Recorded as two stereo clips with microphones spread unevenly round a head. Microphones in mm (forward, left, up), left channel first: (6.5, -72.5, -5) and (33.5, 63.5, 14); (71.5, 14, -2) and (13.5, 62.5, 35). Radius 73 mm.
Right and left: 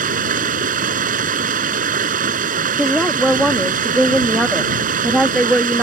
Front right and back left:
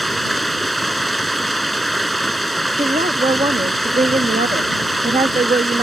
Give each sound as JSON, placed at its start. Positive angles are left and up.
{"t": 0.0, "sound": "running water", "azimuth_deg": 50}
{"t": 2.8, "sound": "a woman speaking", "azimuth_deg": 165}